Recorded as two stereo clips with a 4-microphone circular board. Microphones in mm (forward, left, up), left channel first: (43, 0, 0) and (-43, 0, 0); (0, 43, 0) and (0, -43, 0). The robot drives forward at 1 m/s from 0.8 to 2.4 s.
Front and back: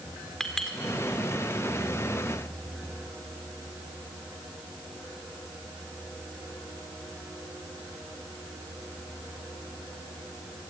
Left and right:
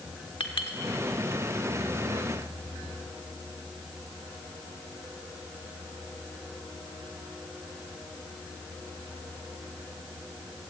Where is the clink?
85° left, 1.8 m.